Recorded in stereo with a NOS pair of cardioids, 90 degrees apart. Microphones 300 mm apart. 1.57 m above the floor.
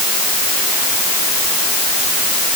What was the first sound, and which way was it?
Only background noise.